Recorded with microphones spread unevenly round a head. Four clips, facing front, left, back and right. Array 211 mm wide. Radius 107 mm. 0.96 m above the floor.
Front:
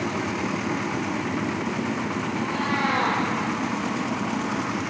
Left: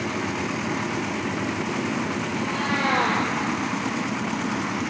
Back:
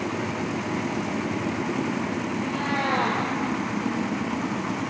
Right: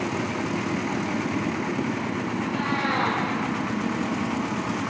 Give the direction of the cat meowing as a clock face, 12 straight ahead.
7 o'clock.